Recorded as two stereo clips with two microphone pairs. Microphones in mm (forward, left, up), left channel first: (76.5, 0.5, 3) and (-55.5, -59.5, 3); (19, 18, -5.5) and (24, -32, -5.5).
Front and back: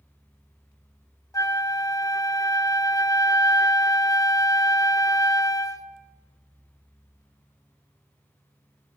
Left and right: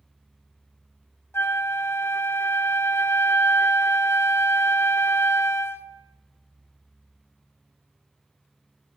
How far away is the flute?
About 0.8 m.